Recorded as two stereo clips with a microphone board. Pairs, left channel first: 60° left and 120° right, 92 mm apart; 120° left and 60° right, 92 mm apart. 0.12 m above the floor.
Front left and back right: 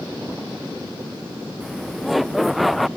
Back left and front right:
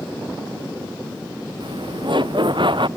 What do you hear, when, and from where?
1.6 s laughter: 30° right